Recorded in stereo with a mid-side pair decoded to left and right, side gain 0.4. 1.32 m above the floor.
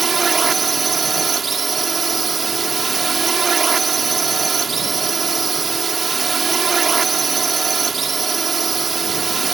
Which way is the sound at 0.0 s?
45° right.